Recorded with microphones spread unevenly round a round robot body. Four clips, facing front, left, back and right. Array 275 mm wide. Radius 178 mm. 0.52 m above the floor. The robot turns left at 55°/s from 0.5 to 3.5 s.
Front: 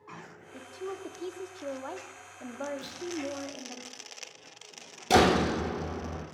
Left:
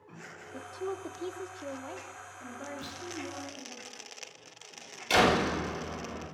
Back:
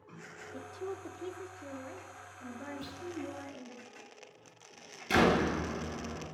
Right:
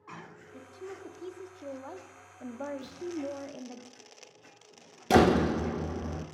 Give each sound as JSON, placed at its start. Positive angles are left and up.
{"t": 0.5, "sound": "a woman speaking", "azimuth_deg": 90, "distance_m": 0.9}
{"t": 2.8, "sound": "a clunk", "azimuth_deg": 120, "distance_m": 6.5}
{"t": 5.1, "sound": "a door slam", "azimuth_deg": -70, "distance_m": 1.0}